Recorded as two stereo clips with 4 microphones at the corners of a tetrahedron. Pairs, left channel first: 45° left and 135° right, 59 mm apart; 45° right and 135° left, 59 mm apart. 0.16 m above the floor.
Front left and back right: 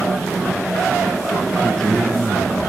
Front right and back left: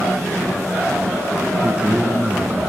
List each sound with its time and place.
1.6 s a man speaking: 120° left, 1.6 m